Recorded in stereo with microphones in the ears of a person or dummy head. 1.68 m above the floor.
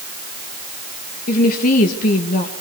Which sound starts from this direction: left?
A woman speaking, at 1.3 s.